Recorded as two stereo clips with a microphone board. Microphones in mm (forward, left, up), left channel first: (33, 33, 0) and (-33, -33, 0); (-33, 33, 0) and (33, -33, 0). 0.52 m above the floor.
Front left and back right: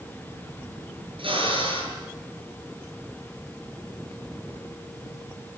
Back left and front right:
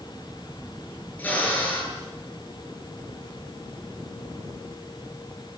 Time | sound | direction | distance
1.2 | a drill | 155° right | 9 m